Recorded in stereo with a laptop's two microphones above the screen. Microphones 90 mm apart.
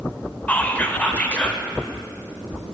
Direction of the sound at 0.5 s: 20° left (ahead or behind).